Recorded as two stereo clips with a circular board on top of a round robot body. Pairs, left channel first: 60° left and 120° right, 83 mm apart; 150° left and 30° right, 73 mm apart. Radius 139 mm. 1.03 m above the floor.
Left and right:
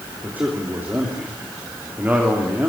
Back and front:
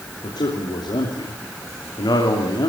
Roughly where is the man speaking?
Behind.